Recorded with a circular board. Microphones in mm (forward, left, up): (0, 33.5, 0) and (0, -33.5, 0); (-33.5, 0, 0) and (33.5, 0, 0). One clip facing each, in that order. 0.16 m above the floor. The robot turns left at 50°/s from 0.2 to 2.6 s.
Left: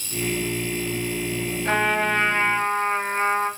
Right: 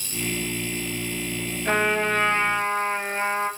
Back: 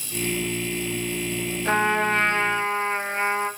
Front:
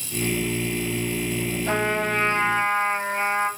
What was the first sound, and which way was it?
A trumpet, 175° left.